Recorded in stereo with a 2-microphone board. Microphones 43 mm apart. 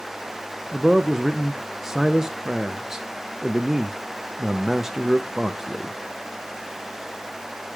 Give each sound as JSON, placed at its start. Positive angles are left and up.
{"t": 0.7, "sound": "a man speaking", "side_deg": -10, "distance_m": 0.6}